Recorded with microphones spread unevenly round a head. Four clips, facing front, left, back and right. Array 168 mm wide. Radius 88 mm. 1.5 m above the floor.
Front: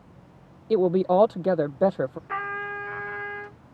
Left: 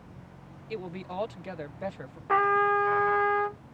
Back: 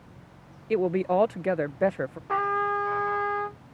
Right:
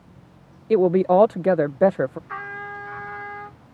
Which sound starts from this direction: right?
A woman speaking, at 0.7 s.